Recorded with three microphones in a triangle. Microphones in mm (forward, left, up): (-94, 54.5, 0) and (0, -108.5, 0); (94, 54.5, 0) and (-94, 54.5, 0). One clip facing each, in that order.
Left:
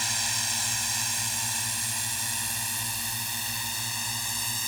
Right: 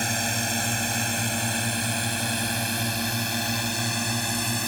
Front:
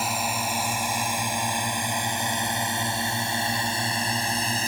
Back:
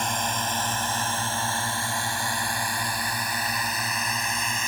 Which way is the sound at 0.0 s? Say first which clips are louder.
Right 11 dB, front 1 dB; 85° right.